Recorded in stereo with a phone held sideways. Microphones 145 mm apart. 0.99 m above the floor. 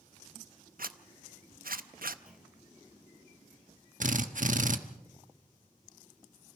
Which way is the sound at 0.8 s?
80° right.